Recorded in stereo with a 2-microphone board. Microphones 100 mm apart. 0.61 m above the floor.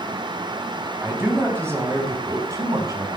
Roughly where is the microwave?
No microwave in this recording.